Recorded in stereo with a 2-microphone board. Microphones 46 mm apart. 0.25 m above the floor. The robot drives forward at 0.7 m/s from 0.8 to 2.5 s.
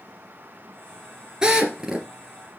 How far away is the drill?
About 1.9 m.